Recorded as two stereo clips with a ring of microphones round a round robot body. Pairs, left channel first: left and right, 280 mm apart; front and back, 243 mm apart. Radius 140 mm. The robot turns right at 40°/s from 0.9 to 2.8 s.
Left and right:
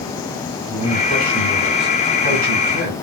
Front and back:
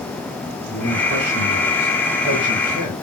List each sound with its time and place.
0.7 s a man speaking: 145° right, 6 m; by 3.0 s 70° right, 6 m